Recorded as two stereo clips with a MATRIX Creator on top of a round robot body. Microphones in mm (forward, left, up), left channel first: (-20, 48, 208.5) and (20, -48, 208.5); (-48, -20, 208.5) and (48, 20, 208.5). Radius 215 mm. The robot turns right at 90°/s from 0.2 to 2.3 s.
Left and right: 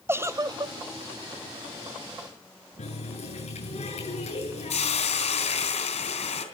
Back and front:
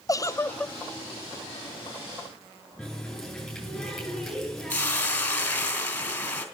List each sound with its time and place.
0.1 s a giggle: 120° right, 0.7 m; by 0.8 s 75° right, 0.7 m
2.8 s a running tap: 115° left, 9 m
4.7 s a hiss: 125° left, 2.5 m